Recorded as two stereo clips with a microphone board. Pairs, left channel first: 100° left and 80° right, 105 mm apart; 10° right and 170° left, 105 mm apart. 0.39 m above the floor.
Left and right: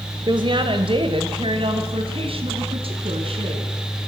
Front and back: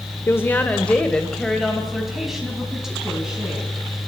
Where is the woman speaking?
70° right, 1.2 m; by 3.7 s 110° right, 4 m.